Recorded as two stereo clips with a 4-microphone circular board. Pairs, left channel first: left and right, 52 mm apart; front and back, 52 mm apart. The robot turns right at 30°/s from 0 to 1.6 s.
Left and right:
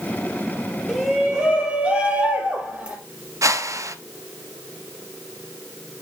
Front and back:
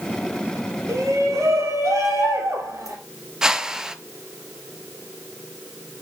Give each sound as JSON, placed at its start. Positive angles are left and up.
{"t": 0.9, "sound": "a shout", "azimuth_deg": 175, "distance_m": 4.0}
{"t": 3.4, "sound": "a whoosh", "azimuth_deg": -100, "distance_m": 0.5}